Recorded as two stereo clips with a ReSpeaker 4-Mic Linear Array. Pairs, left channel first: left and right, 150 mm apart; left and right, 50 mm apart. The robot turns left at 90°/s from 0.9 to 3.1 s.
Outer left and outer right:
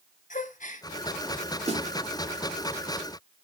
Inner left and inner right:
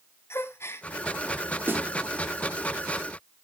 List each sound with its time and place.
0.3 s a gasp: 55° left (ahead or behind), 1.0 m
1.7 s a snare drum: 45° right (ahead or behind), 1.5 m; by 1.9 s 55° right (ahead or behind), 1.5 m